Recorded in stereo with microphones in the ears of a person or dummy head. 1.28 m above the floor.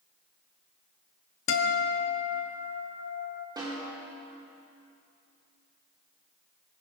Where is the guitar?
65° left (ahead or behind), 1.1 m.